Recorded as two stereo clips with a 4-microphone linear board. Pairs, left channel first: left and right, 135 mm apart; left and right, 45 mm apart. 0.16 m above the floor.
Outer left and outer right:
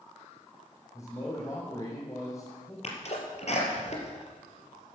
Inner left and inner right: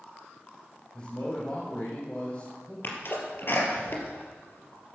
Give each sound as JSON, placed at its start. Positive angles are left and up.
{"t": 0.9, "sound": "a man speaking", "side_deg": 25, "distance_m": 6.5}
{"t": 2.8, "sound": "a sneeze", "side_deg": 55, "distance_m": 4.5}